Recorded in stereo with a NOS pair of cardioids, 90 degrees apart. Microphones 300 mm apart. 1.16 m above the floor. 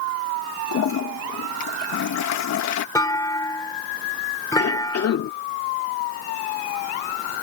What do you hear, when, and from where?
0.7 s a toilet flushing: 65° left
3.0 s a clunk: 10° left
4.6 s a cough: 55° left